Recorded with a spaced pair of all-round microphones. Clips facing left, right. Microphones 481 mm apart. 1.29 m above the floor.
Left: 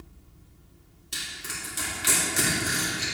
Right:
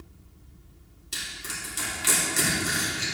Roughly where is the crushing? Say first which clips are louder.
Even; centre.